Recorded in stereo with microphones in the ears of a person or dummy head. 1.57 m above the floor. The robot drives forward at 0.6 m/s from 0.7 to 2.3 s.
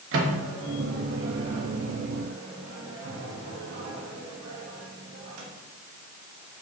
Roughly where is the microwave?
Right.